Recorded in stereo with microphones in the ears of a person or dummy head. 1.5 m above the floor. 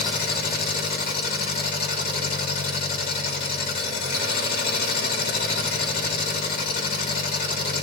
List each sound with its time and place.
0.0 s an engine running: 55° left (ahead or behind), 2.5 m